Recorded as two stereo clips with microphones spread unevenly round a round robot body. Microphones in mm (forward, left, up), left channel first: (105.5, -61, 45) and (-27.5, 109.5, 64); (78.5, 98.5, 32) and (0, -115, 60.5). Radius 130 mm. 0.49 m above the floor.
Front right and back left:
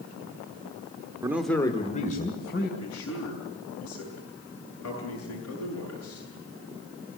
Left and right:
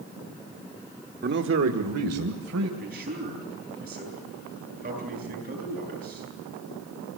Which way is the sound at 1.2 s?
155° right.